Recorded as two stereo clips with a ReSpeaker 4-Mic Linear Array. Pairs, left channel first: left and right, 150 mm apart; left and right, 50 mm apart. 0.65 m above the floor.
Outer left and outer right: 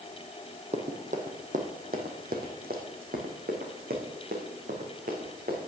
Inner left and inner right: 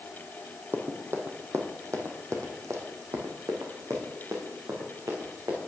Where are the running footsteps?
45° right (ahead or behind), 1.7 m; by 5.7 s 70° right (ahead or behind), 3.5 m.